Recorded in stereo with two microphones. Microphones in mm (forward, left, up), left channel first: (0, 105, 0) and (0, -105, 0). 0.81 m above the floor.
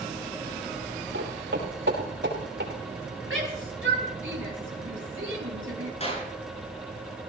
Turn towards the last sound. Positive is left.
turn(degrees=35)  # may be behind; listen again after turning